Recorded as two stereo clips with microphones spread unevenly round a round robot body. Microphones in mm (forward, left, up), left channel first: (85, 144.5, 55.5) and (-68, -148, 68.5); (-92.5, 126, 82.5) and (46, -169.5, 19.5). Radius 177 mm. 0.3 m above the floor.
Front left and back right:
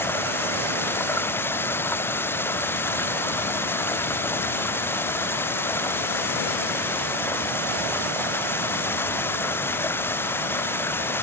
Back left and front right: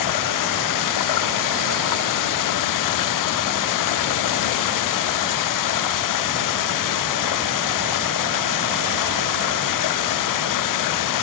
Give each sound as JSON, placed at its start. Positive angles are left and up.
{"t": 0.0, "sound": "running water", "azimuth_deg": 145}